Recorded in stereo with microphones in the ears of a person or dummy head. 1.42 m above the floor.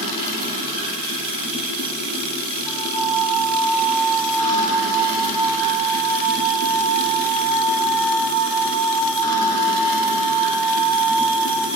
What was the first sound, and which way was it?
Running water, 45° right (ahead or behind).